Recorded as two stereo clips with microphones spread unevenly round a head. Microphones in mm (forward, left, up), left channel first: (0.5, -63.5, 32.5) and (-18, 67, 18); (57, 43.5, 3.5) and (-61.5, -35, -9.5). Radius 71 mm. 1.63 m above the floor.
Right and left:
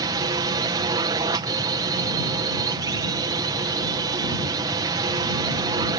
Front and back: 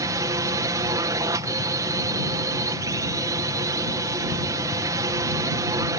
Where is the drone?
150° left.